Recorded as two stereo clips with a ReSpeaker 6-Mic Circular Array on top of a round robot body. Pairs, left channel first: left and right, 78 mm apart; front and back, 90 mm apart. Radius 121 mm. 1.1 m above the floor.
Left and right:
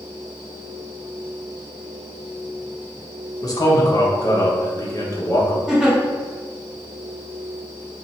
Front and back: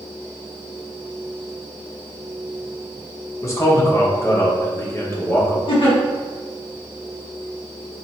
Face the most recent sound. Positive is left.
turn(degrees=-5)